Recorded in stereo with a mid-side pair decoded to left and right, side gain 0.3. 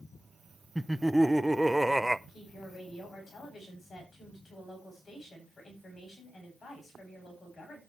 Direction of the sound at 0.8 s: Straight ahead.